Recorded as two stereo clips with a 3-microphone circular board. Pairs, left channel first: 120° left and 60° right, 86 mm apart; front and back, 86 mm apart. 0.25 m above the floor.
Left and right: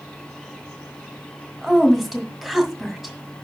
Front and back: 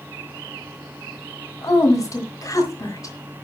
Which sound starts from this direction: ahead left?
A woman speaking, at 1.6 s.